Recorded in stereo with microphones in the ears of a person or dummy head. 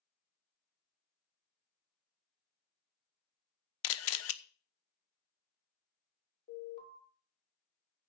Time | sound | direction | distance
3.8 | a camera shutter | 70° left (ahead or behind) | 1.0 m
6.5 | an alarm | 35° left (ahead or behind) | 6.5 m